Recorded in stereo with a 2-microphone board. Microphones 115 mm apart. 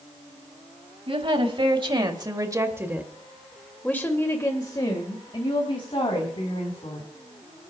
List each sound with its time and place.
1.1 s a woman speaking: 50° right (ahead or behind), 2 m; by 7.1 s 55° left (ahead or behind), 3 m